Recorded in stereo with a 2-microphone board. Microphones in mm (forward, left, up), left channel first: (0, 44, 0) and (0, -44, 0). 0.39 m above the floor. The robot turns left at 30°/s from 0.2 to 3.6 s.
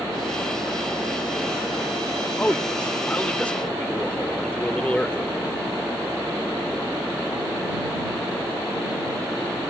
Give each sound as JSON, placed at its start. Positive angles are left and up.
{"t": 2.4, "sound": "a man speaking", "side_deg": 20}